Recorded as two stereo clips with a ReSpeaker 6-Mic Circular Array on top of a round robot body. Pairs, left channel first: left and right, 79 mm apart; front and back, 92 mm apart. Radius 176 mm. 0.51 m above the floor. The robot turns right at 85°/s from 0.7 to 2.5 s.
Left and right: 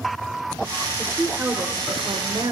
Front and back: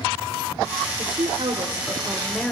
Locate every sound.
1.0 s a woman speaking: 160° left, 3 m; by 2.5 s 75° right, 3 m